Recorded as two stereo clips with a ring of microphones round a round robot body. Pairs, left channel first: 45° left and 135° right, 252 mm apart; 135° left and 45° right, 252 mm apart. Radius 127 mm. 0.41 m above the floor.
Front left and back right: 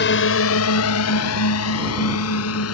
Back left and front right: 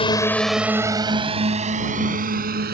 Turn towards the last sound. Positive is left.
turn(degrees=10)